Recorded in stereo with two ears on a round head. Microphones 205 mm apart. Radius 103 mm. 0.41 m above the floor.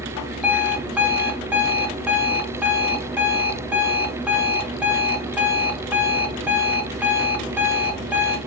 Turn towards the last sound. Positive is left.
turn(degrees=-5)  # may be behind; listen again after turning